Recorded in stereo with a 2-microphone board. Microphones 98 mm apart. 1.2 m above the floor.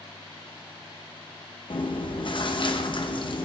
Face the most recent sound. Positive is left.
turn(degrees=55)  # may be behind; listen again after turning